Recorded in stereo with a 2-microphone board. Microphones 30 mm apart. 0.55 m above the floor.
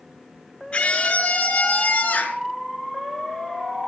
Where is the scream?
30° left (ahead or behind), 6.5 m; by 2.4 s 55° left (ahead or behind), 6 m.